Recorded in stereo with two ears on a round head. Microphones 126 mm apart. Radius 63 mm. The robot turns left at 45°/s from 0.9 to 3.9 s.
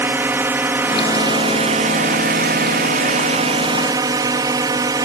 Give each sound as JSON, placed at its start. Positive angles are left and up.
{"t": 0.0, "sound": "a drone", "azimuth_deg": -15}